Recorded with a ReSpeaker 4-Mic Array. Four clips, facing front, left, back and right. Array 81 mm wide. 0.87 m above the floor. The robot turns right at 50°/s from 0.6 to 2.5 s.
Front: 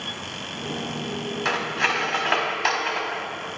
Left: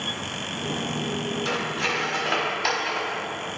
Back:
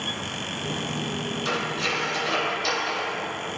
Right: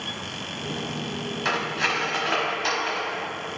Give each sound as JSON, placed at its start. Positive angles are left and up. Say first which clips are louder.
{"t": 1.4, "sound": "cutlery clinking", "louder": "right 6 dB, front 4 dB", "azimuth_deg": -30, "distance_m": 1.2}